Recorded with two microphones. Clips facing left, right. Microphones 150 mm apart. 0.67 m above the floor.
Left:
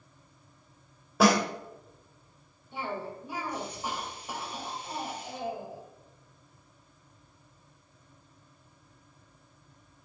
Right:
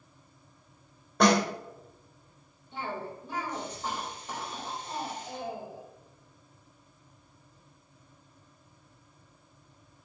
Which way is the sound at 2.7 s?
10° left (ahead or behind).